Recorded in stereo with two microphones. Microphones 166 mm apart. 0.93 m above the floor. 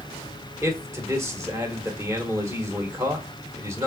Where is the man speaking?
15° right (ahead or behind), 1.4 m.